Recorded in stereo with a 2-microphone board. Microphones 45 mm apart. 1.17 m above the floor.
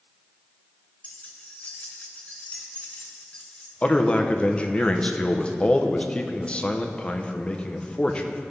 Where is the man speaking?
30° left (ahead or behind), 0.7 m.